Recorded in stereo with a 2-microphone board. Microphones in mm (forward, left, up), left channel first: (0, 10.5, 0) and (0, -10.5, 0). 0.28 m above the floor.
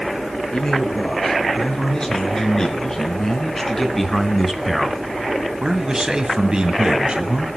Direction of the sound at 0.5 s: 30° left (ahead or behind).